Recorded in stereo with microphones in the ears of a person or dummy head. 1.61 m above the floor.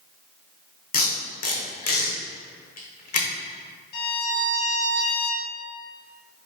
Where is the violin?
60° left (ahead or behind), 1.3 m.